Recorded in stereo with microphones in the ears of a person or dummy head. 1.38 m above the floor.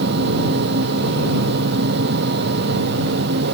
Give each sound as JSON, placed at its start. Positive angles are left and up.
{"t": 0.0, "sound": "a fan", "side_deg": -55}